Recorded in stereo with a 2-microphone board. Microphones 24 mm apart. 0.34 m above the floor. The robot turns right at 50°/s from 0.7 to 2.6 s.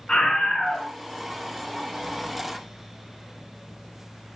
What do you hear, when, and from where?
0.1 s a scream: 45° left (ahead or behind), 4 m; by 0.9 s 35° left (ahead or behind), 4 m